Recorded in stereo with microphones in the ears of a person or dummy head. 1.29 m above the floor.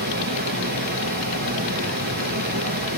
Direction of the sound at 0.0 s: 45° right (ahead or behind).